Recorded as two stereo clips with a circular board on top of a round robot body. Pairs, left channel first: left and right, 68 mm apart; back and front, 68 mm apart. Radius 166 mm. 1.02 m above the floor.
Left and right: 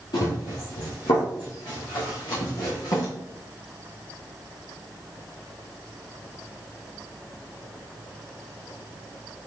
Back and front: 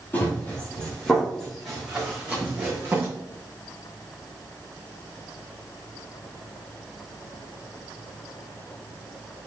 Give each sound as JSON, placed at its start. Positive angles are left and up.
{"t": 0.1, "sound": "running footsteps", "azimuth_deg": 115, "distance_m": 3.0}